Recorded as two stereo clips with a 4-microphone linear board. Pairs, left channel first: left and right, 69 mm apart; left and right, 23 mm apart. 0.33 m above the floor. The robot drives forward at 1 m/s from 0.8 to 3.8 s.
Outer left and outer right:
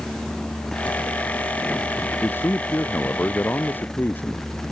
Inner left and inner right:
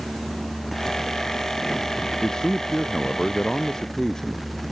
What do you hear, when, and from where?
2.2 s a man speaking: 30° left (ahead or behind); by 4.5 s 25° left (ahead or behind)